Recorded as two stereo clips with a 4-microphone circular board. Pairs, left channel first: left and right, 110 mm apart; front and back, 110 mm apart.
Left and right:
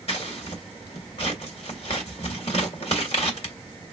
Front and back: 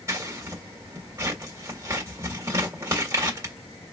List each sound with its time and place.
0.1 s scissors: 115° left, 1.8 m